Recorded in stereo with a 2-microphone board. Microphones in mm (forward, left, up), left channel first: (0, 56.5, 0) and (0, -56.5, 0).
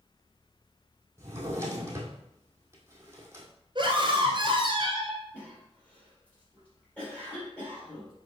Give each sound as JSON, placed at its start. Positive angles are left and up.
{"t": 1.2, "sound": "a drawer", "side_deg": -25, "distance_m": 1.7}
{"t": 3.8, "sound": "a scream", "side_deg": -45, "distance_m": 1.8}
{"t": 5.3, "sound": "a cough", "side_deg": 10, "distance_m": 3.5}